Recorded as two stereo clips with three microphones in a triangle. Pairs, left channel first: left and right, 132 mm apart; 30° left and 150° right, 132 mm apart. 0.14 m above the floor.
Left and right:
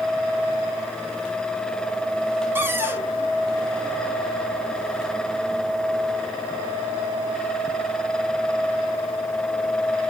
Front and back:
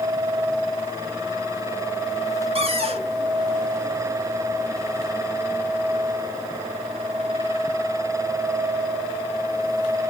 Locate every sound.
2.5 s a cupboard door: 160° right, 0.8 m